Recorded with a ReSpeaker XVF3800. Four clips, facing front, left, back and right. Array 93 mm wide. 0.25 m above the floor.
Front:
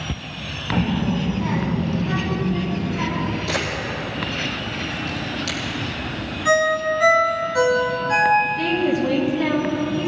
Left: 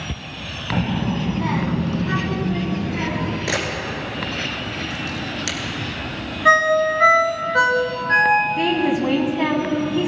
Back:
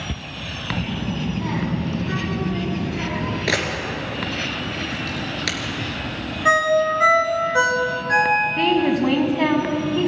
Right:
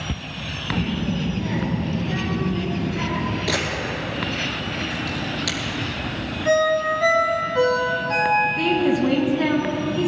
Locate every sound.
0.7 s a child speaking: 40° left, 1.1 m; by 3.4 s 100° left, 4 m
3.5 s a camera shutter: 165° left, 2.5 m
6.5 s a ringtone: 120° left, 2.5 m
8.6 s a woman speaking: 150° left, 2.5 m